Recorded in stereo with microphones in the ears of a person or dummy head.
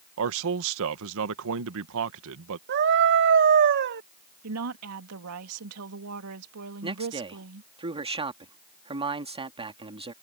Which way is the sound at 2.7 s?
50° right (ahead or behind).